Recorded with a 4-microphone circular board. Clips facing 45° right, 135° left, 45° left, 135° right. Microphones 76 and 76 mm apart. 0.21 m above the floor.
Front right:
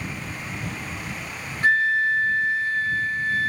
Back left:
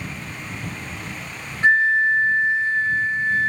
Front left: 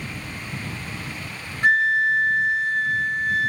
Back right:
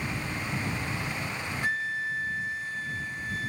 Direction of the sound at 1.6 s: 70° left.